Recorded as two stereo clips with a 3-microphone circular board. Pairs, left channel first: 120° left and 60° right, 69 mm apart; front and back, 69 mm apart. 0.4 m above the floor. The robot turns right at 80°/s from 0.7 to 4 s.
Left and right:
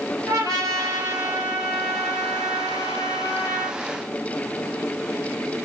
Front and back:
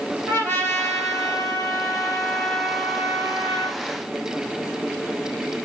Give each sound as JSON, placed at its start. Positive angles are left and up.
{"t": 0.3, "sound": "a trumpet", "azimuth_deg": -55, "distance_m": 3.5}